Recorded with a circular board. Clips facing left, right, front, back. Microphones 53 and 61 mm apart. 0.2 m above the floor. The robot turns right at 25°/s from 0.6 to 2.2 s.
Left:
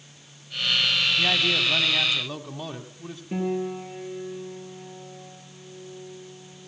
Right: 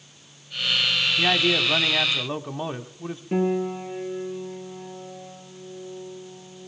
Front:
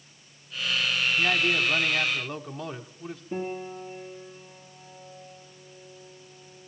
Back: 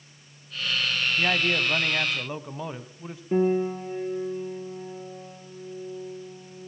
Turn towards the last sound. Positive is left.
turn(degrees=-160)